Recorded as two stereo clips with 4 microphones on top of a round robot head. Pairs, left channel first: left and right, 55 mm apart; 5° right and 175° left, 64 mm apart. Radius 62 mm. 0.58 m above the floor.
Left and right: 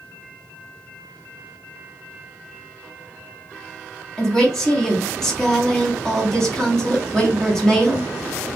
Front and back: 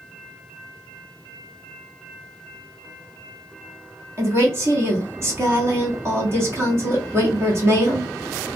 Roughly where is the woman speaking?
Behind.